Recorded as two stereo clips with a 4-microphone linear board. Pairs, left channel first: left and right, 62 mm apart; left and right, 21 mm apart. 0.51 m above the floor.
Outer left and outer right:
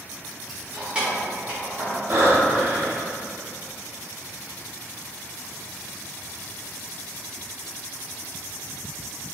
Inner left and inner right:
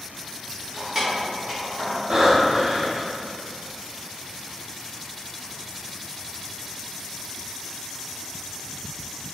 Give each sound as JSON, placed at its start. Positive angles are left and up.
{"t": 0.5, "sound": "keys jangling", "side_deg": -5, "distance_m": 0.7}
{"t": 2.1, "sound": "breathing", "side_deg": -45, "distance_m": 0.6}